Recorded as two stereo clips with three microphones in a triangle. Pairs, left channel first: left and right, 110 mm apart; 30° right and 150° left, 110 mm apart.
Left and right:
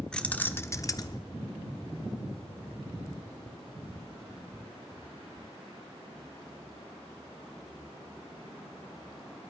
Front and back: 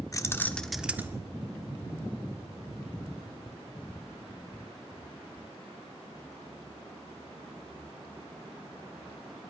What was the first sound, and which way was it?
Keys jangling, 10° left.